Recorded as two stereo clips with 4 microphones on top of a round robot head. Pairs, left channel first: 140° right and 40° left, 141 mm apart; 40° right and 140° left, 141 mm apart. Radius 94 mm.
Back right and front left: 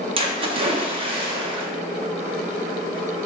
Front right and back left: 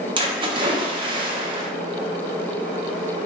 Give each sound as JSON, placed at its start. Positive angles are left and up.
{"t": 0.2, "sound": "a splash", "azimuth_deg": 85, "distance_m": 0.6}